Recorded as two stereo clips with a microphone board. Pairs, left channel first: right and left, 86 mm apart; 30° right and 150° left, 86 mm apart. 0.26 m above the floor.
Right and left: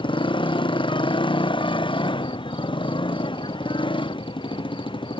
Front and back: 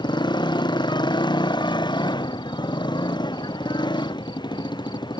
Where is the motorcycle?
65° right.